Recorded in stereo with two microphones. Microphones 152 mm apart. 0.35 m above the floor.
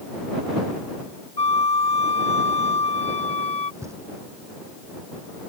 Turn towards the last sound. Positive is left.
turn(degrees=-20)  # may be behind; listen again after turning